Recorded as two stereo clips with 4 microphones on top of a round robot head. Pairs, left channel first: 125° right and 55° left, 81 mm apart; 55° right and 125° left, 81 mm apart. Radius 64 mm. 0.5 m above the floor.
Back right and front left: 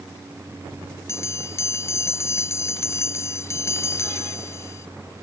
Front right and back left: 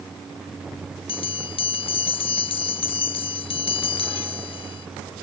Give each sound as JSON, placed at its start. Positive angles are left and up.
{"t": 1.1, "sound": "a bell", "azimuth_deg": -70}